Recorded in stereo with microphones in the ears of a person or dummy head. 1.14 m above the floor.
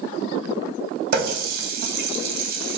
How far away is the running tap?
About 0.7 m.